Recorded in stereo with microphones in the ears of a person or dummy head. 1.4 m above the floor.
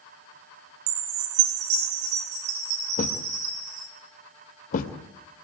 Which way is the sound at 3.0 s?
50° left (ahead or behind).